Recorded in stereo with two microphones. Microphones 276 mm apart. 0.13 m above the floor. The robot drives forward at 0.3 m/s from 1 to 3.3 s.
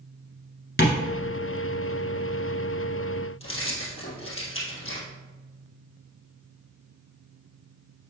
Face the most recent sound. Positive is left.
turn(degrees=50)  # may be behind; listen again after turning